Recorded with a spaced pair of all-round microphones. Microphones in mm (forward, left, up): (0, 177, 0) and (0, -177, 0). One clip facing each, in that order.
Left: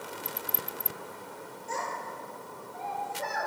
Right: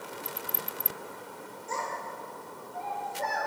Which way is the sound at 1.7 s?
10° right (ahead or behind).